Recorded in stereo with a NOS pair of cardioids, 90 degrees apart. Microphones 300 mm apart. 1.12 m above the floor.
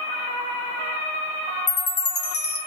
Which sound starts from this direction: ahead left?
A chime, at 1.7 s.